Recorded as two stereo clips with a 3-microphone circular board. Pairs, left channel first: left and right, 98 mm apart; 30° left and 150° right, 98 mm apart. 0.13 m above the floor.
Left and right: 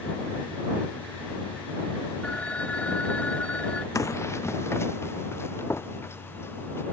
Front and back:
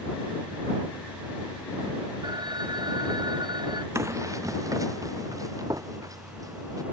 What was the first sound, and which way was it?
A phone ringing, 165° left.